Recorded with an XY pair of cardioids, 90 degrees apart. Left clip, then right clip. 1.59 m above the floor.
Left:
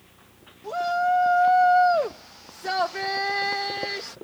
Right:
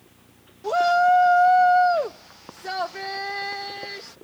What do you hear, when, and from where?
0.6 s a shout: 60° right; by 4.2 s 40° left